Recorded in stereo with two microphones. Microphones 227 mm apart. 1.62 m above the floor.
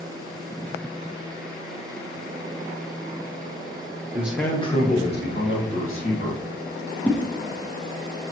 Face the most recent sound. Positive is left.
turn(degrees=5)  # may be behind; listen again after turning